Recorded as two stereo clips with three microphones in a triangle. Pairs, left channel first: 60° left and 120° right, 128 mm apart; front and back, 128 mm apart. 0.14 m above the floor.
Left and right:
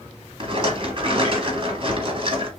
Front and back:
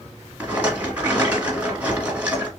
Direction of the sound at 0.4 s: 105° right.